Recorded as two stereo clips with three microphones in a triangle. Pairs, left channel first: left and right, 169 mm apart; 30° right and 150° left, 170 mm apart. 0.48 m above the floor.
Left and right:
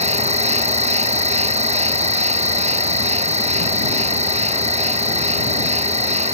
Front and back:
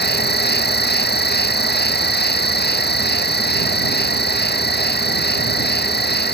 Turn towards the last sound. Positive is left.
turn(degrees=-40)